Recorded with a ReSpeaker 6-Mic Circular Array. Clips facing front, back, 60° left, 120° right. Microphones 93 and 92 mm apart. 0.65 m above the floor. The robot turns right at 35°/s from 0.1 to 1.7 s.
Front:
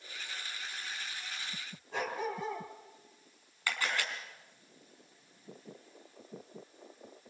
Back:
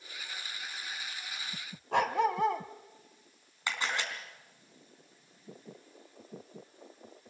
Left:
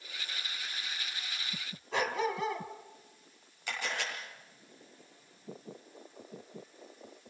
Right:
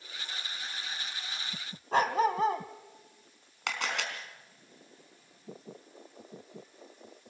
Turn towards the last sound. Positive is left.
turn(degrees=-110)